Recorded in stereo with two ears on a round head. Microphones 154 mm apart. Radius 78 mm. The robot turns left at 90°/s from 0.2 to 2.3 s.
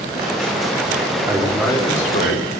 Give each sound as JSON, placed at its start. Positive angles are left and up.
{"t": 1.3, "sound": "a man speaking", "azimuth_deg": -160, "distance_m": 2.0}